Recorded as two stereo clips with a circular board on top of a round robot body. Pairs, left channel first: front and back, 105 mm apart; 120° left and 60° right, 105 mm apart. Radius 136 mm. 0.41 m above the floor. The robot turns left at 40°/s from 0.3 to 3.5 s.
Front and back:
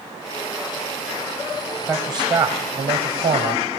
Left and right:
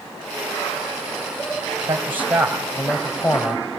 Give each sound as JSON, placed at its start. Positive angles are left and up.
{"t": 1.9, "sound": "a man speaking", "azimuth_deg": -120, "distance_m": 2.5}